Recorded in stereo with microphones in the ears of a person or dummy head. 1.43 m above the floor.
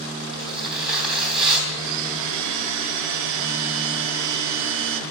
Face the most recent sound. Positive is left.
turn(degrees=-70)  # may be behind; listen again after turning